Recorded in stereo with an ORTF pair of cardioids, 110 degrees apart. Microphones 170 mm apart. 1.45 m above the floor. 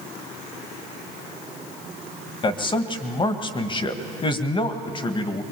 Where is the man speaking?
30° left, 1.8 m.